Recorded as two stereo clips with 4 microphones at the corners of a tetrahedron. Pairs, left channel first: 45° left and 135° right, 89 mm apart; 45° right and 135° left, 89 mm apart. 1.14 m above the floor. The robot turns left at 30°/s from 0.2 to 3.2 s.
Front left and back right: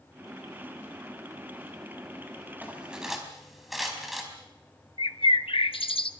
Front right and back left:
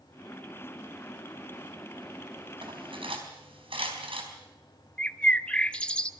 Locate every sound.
2.6 s cutlery clinking: 155° left, 4.5 m; by 4.3 s 135° left, 4.5 m
5.0 s a bird: 35° left, 0.8 m